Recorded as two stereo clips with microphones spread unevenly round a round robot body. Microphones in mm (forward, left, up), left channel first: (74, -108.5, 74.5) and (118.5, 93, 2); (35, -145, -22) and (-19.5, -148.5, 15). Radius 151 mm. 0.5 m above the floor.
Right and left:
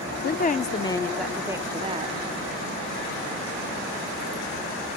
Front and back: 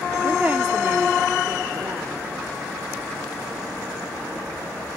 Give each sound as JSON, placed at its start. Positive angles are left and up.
{"t": 0.2, "sound": "a woman speaking", "azimuth_deg": -65}